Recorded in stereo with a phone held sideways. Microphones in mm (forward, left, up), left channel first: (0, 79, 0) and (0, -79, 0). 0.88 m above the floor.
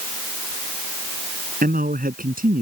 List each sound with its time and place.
1.6 s a man speaking: 70° right (ahead or behind)